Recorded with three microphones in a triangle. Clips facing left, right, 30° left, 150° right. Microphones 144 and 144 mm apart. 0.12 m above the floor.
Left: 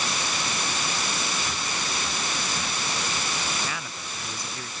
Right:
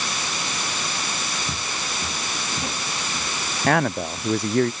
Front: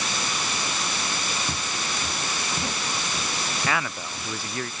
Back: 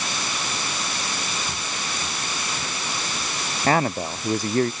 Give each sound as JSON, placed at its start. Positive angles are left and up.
{"t": 1.5, "sound": "footsteps", "azimuth_deg": -35}
{"t": 3.7, "sound": "a man speaking", "azimuth_deg": -105}